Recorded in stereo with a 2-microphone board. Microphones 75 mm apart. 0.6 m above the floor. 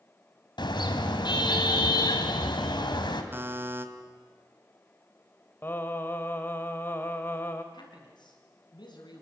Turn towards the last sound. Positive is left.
turn(degrees=75)  # may be behind; listen again after turning